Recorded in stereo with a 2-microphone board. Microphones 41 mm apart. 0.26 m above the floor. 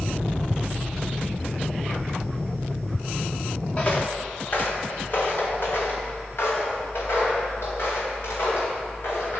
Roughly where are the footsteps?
Left.